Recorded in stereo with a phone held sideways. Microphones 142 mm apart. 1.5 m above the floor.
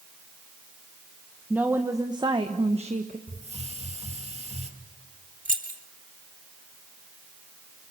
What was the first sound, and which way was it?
A woman speaking, 10° right (ahead or behind).